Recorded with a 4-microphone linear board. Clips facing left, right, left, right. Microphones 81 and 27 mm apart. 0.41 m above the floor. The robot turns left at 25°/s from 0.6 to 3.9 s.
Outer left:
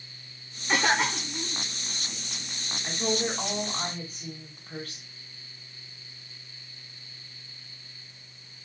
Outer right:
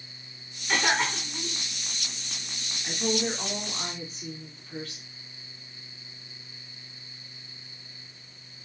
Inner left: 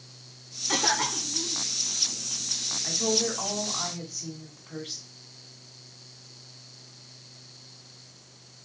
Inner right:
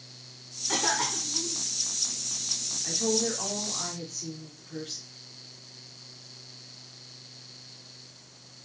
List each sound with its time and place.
0.7 s a cough: 15° left (ahead or behind), 0.9 m; by 1.6 s centre (ahead or behind), 0.9 m
2.8 s a woman speaking: 30° left (ahead or behind), 1.9 m; by 5.0 s 50° left (ahead or behind), 1.9 m